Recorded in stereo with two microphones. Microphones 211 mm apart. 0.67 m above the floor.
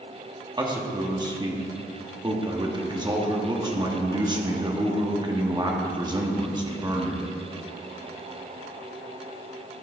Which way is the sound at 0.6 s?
20° right (ahead or behind).